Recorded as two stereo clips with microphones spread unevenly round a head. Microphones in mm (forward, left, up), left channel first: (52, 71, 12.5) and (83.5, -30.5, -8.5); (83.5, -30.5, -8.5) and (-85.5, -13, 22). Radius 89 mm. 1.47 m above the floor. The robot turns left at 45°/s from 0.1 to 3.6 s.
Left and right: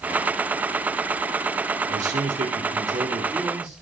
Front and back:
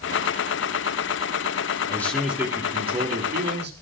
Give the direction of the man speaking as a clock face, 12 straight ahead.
3 o'clock.